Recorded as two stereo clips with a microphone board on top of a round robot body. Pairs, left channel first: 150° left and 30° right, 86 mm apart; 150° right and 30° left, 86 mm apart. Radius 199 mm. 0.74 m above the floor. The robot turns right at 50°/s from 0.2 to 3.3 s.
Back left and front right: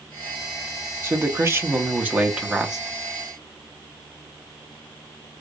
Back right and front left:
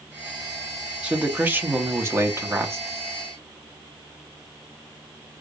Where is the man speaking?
35° right, 1.1 m; by 2.8 s 55° left, 1.1 m.